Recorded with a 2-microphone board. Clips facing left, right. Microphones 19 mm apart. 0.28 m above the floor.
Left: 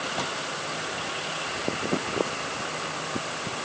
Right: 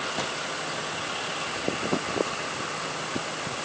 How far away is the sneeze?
I don't hear a sneeze.